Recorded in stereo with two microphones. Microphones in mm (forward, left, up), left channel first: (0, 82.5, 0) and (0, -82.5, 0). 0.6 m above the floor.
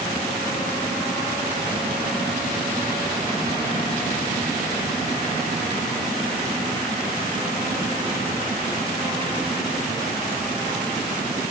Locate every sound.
Only background noise.